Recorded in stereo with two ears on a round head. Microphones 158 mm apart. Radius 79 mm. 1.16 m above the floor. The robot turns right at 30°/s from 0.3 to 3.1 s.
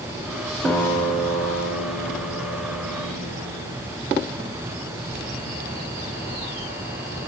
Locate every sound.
0.7 s a guitar: 10° left, 1.2 m; by 3.8 s 85° left, 1.2 m